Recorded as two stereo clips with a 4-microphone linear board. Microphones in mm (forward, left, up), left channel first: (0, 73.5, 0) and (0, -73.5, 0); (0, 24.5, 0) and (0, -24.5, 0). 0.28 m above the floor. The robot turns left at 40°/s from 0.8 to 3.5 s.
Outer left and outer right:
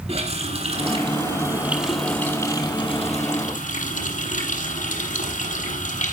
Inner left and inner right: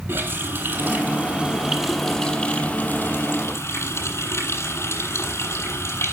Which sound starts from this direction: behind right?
A running tap, at 0.1 s.